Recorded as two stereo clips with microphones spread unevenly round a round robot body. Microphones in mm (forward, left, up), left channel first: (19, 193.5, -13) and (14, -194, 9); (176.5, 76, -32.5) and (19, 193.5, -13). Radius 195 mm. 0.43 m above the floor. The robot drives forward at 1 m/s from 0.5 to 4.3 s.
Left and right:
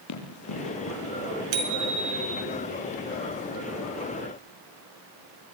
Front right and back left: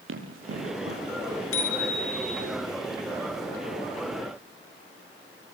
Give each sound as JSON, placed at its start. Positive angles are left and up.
{"t": 0.1, "sound": "running footsteps", "azimuth_deg": 140, "distance_m": 6.5}
{"t": 1.5, "sound": "a bicycle bell", "azimuth_deg": -75, "distance_m": 3.5}